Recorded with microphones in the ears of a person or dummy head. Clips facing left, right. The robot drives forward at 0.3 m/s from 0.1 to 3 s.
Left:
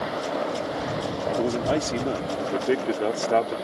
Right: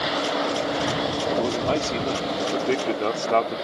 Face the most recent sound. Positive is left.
turn(degrees=15)  # may be behind; listen again after turning